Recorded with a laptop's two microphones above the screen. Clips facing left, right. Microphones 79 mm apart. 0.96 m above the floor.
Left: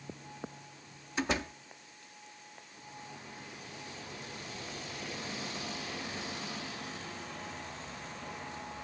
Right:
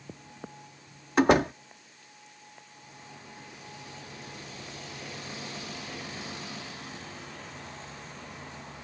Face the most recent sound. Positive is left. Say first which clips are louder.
# right 13 dB
turn(degrees=-60)  # may be behind; listen again after turning